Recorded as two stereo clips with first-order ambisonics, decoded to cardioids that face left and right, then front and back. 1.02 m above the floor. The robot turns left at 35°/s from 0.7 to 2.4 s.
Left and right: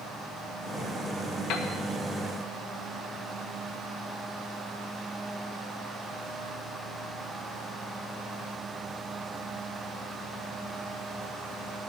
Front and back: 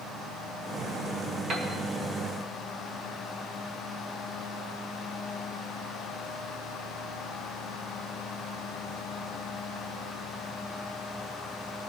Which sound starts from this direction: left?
A piano, at 1.5 s.